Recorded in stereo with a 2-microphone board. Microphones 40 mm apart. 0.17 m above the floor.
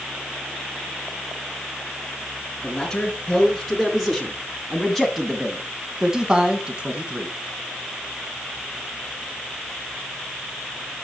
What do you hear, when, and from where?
2.6 s a man speaking: 25° left (ahead or behind), 3 m; by 7.3 s 25° right (ahead or behind), 2 m